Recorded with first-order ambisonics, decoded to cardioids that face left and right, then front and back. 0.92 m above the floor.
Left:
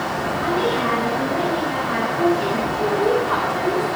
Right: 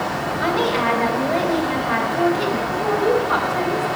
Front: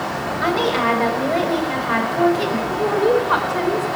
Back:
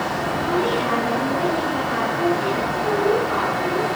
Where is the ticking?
I don't hear ticking.